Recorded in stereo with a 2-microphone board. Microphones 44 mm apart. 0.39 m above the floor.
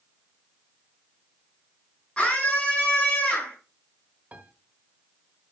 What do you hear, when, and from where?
2.2 s a scream: 20° left (ahead or behind), 5 m
4.3 s a piano: 35° right (ahead or behind), 1.3 m